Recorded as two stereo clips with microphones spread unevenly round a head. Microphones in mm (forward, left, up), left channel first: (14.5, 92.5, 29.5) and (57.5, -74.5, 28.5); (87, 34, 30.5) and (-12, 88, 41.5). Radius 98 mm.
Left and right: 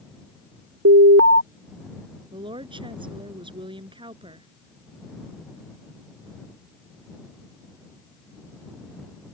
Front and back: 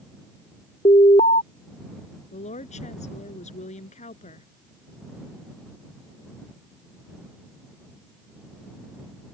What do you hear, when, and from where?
0.8 s an alarm: 85° right
2.3 s a woman speaking: 15° right